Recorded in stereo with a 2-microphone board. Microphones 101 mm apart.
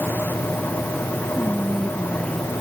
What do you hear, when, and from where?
1.4 s whispering: 5° left (ahead or behind)